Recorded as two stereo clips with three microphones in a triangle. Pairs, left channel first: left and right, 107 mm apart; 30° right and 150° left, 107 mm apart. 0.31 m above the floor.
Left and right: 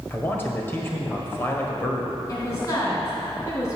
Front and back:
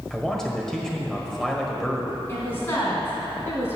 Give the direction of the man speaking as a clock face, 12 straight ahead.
10 o'clock.